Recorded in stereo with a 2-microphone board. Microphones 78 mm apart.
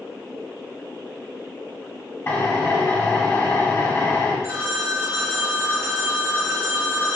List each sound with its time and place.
2.3 s a drill: 35° left (ahead or behind), 2 m
4.4 s a phone ringing: 40° right (ahead or behind), 1.5 m